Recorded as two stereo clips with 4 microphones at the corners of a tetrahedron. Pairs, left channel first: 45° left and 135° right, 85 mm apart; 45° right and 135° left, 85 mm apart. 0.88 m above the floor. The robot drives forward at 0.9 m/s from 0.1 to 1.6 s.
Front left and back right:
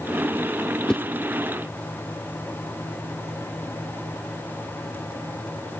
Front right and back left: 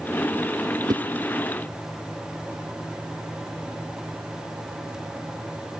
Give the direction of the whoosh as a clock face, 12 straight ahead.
8 o'clock.